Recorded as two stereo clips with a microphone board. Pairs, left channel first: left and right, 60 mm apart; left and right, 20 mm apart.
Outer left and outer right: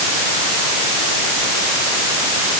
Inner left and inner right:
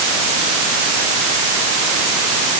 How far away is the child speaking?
No child speaking in this recording.